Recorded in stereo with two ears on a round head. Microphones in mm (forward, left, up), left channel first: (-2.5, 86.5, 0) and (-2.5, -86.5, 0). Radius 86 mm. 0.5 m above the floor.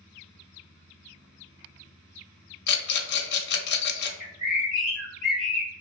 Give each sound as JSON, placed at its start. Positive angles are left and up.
{"t": 2.7, "sound": "a rattle", "side_deg": 55, "distance_m": 0.6}
{"t": 4.2, "sound": "a bird", "side_deg": 0, "distance_m": 1.0}